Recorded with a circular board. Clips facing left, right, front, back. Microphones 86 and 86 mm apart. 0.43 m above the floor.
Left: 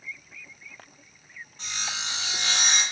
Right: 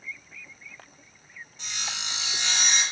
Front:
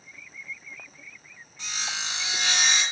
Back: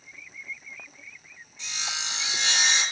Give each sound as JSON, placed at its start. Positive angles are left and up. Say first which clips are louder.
{"t": 1.6, "sound": "sawing", "louder": "left 2 dB, front 2 dB", "azimuth_deg": 40, "distance_m": 2.0}